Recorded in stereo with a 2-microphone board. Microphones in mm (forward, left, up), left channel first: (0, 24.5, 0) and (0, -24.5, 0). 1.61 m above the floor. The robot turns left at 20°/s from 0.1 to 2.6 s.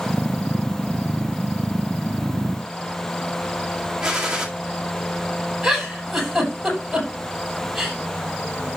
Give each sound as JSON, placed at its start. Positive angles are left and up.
{"t": 4.0, "sound": "a gunshot", "side_deg": -15, "distance_m": 2.0}
{"t": 5.6, "sound": "a giggle", "side_deg": -5, "distance_m": 8.0}